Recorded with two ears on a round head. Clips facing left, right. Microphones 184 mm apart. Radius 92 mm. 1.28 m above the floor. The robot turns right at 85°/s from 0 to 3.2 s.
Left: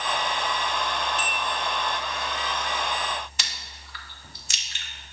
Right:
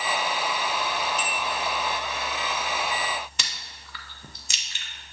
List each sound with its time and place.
1.2 s a bell: 80° right, 2 m; by 1.5 s 55° right (ahead or behind), 2 m
3.4 s chewing: 70° right (ahead or behind), 0.8 m